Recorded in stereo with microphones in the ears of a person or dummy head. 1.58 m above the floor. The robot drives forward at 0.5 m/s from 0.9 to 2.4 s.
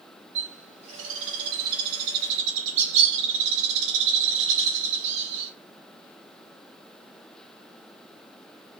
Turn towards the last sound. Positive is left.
turn(degrees=-65)  # may be behind; listen again after turning